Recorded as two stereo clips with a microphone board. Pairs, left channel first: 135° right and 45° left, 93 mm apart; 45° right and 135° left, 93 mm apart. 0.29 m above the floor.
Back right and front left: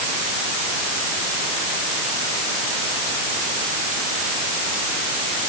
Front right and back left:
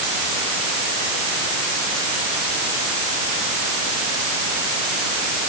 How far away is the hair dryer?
No hair dryer in this recording.